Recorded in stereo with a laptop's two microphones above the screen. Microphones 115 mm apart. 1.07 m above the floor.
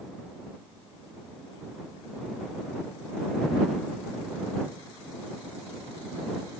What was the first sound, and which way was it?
Only background noise.